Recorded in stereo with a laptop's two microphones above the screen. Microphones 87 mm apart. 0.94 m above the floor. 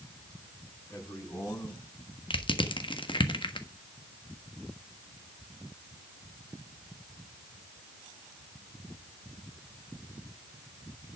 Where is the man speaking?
25° left (ahead or behind), 6.5 m; by 2.2 s 35° left (ahead or behind), 6 m.